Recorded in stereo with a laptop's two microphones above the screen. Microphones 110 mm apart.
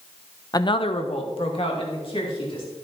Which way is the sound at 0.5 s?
35° left (ahead or behind).